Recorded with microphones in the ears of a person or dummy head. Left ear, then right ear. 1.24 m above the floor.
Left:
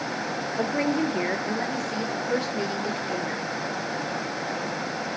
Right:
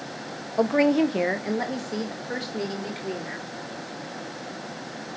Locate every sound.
0.6 s a woman speaking: 55° right (ahead or behind), 0.5 m; by 3.5 s 10° right (ahead or behind), 2 m